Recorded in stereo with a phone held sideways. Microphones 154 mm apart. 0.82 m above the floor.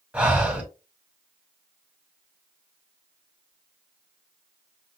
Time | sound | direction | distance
0.1 | breathing | 10° right (ahead or behind) | 1.4 m